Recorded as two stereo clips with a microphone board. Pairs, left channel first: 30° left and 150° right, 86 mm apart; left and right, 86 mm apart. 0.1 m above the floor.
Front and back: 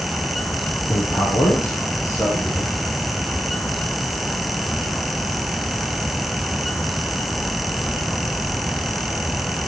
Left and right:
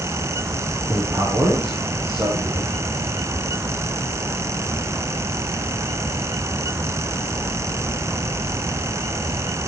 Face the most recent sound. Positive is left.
turn(degrees=-25)